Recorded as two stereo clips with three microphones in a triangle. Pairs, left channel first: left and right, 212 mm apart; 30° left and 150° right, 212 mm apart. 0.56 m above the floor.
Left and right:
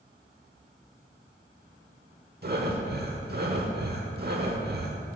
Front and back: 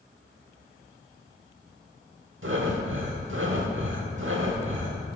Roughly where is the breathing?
Behind right.